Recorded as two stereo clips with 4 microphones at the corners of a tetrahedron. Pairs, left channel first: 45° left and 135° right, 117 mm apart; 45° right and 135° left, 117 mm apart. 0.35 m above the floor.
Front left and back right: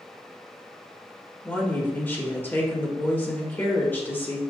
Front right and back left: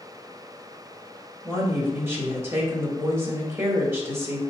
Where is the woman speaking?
95° left, 0.9 m.